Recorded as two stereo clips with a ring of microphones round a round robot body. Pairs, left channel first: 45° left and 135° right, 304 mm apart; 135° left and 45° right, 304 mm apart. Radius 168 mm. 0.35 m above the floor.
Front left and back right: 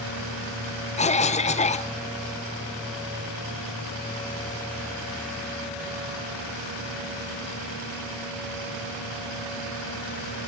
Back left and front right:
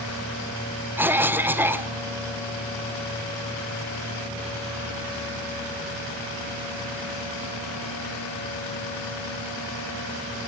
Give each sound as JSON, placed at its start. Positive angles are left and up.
{"t": 1.0, "sound": "a cough", "azimuth_deg": 25, "distance_m": 1.0}